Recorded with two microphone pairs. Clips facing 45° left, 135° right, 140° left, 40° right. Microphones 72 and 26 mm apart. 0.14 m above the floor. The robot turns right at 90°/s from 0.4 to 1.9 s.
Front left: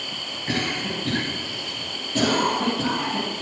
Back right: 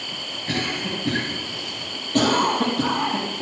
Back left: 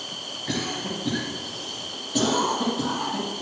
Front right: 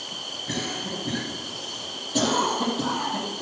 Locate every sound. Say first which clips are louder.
0.5 s a cough: even, back left 2 dB; 105° left, 4.5 m; by 3.4 s 130° right, 4.5 m